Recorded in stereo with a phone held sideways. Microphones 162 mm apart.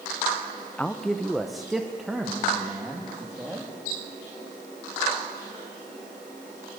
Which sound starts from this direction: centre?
A man speaking, at 0.8 s.